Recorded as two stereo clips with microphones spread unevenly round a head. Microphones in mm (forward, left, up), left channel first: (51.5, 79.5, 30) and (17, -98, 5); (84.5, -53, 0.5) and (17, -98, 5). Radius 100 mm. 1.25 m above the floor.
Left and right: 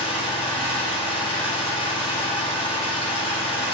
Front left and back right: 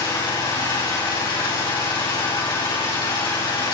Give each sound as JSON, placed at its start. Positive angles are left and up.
{"t": 0.0, "sound": "an engine running", "azimuth_deg": 20, "distance_m": 6.0}